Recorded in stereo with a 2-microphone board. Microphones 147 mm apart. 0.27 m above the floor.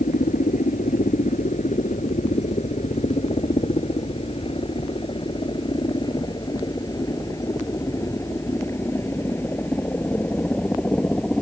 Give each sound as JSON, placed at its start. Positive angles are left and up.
{"t": 0.0, "sound": "a helicopter", "side_deg": 60}